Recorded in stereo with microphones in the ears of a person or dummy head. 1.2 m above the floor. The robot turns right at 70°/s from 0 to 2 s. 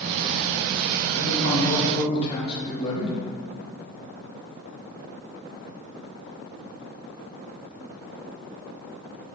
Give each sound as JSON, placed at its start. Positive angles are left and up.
{"t": 1.1, "sound": "a man speaking", "azimuth_deg": 95, "distance_m": 2.5}